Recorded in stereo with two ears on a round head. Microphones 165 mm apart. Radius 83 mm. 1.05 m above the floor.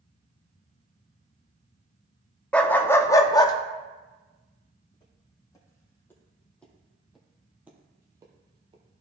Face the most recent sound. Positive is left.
turn(degrees=-30)  # may be behind; listen again after turning